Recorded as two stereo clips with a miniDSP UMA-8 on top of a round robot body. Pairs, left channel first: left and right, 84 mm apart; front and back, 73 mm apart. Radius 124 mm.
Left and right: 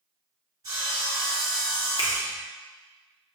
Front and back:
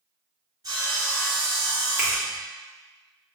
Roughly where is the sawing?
Behind right.